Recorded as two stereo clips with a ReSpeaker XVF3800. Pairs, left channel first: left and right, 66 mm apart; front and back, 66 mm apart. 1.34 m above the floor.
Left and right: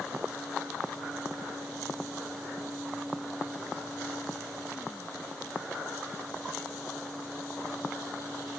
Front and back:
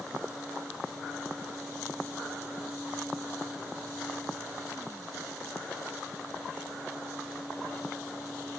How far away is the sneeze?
No sneeze in this recording.